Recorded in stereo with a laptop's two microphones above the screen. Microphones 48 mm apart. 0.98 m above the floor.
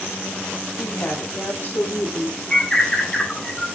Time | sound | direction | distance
0.8 | a woman speaking | 60° left (ahead or behind) | 4.5 m
2.5 | a bird | 20° left (ahead or behind) | 1.9 m